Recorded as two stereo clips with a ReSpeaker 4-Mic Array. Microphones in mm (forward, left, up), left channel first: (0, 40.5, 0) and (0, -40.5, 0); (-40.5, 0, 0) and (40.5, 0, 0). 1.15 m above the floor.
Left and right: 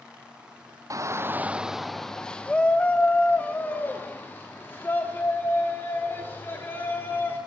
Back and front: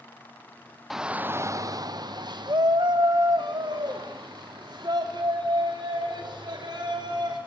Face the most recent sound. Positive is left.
turn(degrees=30)